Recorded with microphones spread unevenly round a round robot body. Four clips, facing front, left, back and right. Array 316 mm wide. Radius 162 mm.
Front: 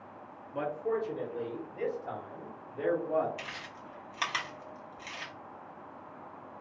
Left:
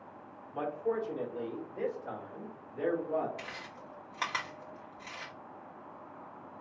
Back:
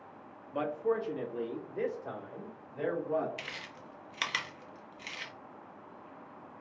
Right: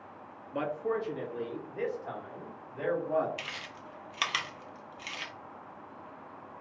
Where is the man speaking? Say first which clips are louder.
Right 1 dB, back 1 dB; 125° right, 1.1 m; by 3.3 s 170° right, 3 m.